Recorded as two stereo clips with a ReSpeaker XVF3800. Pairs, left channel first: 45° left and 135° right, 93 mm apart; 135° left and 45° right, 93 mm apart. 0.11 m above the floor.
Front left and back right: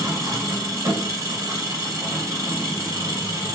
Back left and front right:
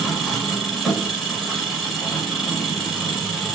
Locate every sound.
0.0 s an engine running: 135° right, 1.5 m